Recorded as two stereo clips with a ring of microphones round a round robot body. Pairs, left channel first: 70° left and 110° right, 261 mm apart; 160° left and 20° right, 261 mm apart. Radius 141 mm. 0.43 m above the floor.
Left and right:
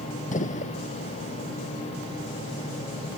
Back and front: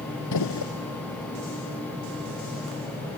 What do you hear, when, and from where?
0.3 s a gunshot: 130° left